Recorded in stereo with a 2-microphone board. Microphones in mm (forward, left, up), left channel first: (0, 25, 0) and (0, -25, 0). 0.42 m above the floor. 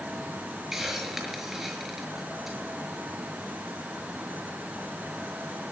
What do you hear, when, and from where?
0.7 s a hiss: 5° right (ahead or behind), 6 m